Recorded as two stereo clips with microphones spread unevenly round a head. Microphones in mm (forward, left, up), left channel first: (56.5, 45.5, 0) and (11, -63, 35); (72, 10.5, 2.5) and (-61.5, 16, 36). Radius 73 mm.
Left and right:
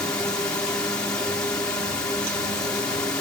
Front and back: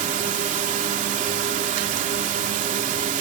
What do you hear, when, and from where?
0.0 s a drone: 145° left